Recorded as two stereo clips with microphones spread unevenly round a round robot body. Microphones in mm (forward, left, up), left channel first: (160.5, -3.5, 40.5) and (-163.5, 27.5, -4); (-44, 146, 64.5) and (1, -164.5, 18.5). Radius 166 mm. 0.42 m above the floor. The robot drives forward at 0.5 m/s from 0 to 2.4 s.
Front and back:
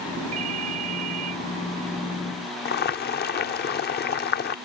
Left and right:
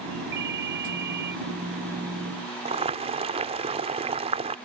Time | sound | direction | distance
0.3 | a ringtone | 140° right | ?
2.6 | boiling | 50° right | ?